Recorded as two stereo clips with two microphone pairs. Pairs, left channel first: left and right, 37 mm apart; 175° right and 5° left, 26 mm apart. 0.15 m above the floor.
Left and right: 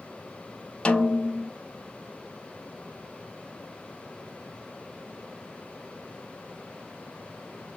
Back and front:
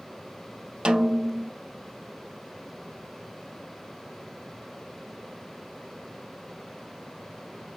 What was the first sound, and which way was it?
A snare drum, 40° left.